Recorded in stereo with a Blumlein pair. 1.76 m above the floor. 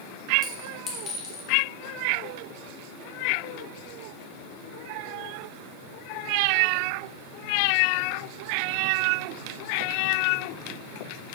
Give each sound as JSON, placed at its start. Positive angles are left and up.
{"t": 0.4, "sound": "a clink", "azimuth_deg": 30, "distance_m": 2.0}